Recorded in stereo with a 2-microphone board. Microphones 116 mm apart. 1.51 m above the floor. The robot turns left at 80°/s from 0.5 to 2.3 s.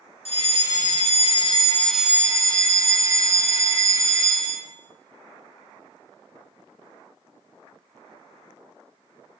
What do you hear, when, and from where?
0.2 s a fire alarm: 120° left, 3 m; by 4.6 s 25° right, 3 m